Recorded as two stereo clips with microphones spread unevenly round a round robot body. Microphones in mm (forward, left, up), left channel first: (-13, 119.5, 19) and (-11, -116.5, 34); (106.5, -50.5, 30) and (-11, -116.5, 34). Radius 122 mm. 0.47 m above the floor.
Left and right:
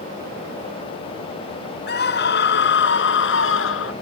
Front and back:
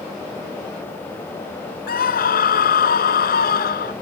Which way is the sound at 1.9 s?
40° left.